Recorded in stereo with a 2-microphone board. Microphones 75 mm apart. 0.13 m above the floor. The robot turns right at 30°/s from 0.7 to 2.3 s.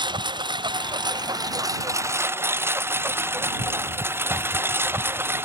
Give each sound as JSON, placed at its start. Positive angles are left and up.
{"t": 0.0, "sound": "a lawn mower", "side_deg": -80}